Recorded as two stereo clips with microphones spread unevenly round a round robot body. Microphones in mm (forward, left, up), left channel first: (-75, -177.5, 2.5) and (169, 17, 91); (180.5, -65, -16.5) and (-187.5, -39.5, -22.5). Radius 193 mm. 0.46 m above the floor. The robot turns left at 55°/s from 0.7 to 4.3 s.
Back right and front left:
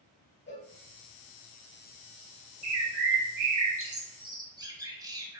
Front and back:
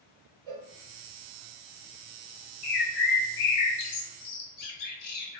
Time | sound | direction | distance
0.5 | a cowbell | 155° left | 0.9 m
2.6 | a bird | 50° left | 0.8 m